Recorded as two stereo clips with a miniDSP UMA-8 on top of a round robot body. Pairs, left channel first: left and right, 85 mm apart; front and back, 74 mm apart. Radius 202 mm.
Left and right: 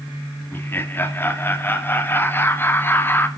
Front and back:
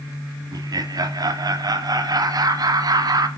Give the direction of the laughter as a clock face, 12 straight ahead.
7 o'clock.